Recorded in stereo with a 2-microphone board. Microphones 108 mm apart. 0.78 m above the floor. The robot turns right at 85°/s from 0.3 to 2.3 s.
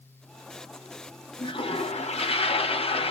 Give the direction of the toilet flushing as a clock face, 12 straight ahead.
11 o'clock.